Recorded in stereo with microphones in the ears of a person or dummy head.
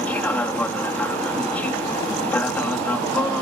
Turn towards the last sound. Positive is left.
turn(degrees=5)  # may be behind; listen again after turning